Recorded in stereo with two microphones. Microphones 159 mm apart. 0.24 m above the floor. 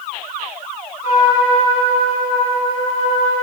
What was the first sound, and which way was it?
A trumpet, 50° left (ahead or behind).